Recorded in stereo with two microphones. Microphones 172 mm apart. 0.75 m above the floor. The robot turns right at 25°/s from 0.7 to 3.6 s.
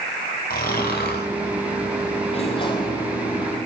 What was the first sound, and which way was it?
Snoring, 60° left (ahead or behind).